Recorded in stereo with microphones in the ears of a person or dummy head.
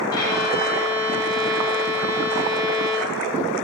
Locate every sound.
0.1 s a violin: 15° left (ahead or behind), 0.5 m